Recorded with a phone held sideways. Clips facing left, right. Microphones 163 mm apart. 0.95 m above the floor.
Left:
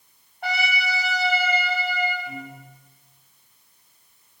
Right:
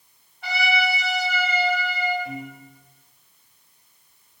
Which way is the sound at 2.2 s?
55° right (ahead or behind).